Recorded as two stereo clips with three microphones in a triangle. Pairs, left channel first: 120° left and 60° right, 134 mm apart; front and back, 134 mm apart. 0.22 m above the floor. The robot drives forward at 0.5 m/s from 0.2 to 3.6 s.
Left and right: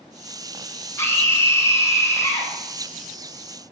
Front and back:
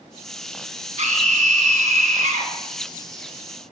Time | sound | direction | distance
1.0 | a scream | straight behind | 1.7 m